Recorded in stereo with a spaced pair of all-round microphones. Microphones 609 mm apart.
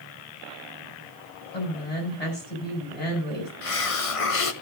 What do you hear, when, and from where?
1.5 s a woman speaking: 80° left, 6.5 m
3.6 s a hiss: 60° left (ahead or behind), 1.0 m